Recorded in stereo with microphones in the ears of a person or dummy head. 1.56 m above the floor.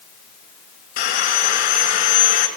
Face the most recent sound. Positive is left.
turn(degrees=45)  # may be behind; listen again after turning